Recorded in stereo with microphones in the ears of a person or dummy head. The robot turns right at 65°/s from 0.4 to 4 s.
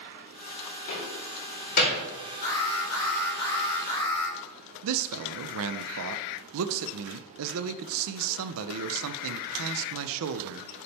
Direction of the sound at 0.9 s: 75° left (ahead or behind).